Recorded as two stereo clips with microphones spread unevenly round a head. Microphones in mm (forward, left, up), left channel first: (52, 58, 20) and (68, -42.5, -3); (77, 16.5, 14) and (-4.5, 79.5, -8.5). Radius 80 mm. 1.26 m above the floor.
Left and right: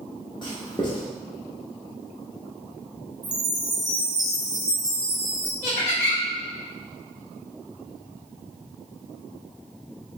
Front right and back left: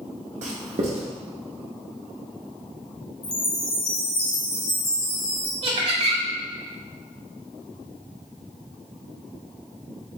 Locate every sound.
0.4 s writing: 150° left, 0.9 m
3.2 s a chime: 30° right, 1.3 m
5.6 s laughter: 110° left, 1.9 m